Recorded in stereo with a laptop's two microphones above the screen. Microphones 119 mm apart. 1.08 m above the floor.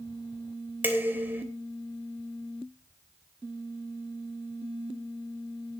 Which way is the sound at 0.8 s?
15° right (ahead or behind).